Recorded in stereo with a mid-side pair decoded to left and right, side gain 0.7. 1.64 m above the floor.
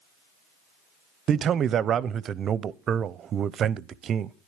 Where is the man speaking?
40° right, 0.6 m.